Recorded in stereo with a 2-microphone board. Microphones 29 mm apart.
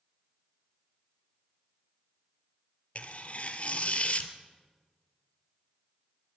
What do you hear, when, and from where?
3.0 s tearing paper: 50° left (ahead or behind), 1.9 m